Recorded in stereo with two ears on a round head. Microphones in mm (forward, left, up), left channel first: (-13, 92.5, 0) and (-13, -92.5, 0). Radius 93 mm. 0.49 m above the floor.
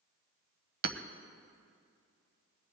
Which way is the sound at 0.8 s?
50° right (ahead or behind).